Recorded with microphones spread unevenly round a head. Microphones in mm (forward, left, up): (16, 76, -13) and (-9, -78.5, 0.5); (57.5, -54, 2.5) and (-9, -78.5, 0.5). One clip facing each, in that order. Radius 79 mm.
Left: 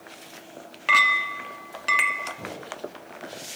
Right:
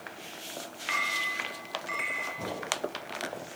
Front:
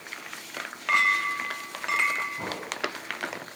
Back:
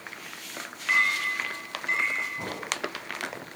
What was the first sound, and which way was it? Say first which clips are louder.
A clink: left 11 dB, front 1 dB; 75° left.